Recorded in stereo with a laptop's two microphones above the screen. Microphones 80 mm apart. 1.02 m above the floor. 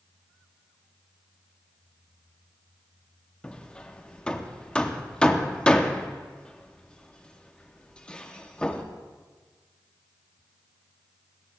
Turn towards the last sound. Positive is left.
turn(degrees=15)  # may be behind; listen again after turning